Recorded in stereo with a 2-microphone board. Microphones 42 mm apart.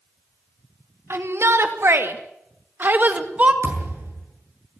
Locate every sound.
1.1 s a shout: 80° right, 3 m; by 3.5 s 35° right (ahead or behind), 2 m
3.6 s a thud: 75° right (ahead or behind), 7.5 m